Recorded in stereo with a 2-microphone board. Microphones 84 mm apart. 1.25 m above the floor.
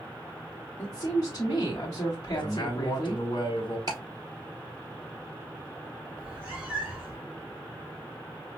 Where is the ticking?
55° right (ahead or behind), 3 m.